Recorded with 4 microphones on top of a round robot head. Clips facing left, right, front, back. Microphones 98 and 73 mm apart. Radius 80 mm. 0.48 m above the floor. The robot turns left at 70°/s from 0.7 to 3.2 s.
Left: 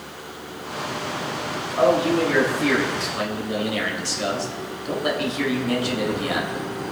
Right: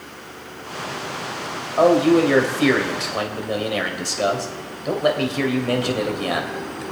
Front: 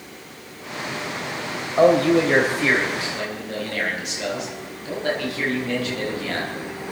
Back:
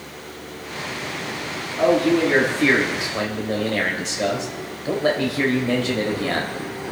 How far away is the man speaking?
About 3 m.